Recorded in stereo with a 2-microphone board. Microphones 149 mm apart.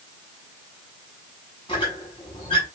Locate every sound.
1.7 s a squeak: 35° left (ahead or behind), 7 m